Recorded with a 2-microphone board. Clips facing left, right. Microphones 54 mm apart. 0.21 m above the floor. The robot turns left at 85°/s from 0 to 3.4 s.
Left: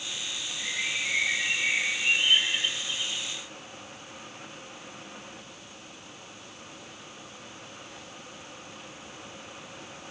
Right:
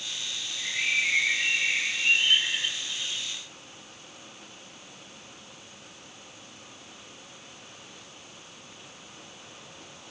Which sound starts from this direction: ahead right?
A bird, at 0.6 s.